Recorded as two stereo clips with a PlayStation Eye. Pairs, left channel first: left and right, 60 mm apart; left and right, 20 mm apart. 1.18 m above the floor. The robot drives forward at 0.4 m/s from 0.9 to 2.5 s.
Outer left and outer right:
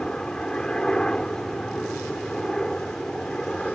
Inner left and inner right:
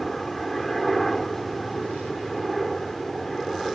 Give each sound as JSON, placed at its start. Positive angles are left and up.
{"t": 0.0, "sound": "a helicopter", "side_deg": 15}